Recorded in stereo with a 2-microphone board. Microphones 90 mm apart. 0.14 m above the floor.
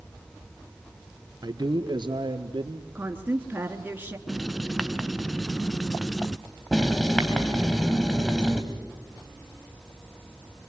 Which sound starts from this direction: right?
A man speaking, at 1.4 s.